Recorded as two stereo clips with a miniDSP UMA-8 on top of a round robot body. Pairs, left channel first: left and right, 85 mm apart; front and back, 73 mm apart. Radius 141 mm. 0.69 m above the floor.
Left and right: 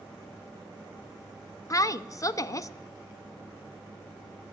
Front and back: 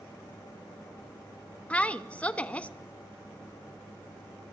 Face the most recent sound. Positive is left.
turn(degrees=65)